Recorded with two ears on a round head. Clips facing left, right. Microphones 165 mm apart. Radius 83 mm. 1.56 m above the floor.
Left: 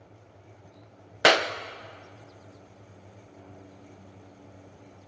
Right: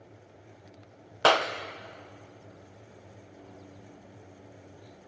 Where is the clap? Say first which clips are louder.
Left 1 dB; 20° left (ahead or behind), 0.8 m.